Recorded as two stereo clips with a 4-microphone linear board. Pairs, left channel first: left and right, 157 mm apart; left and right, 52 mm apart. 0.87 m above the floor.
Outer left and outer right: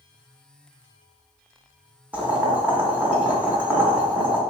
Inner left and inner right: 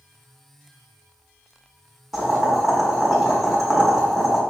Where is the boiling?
10° right (ahead or behind), 0.8 m.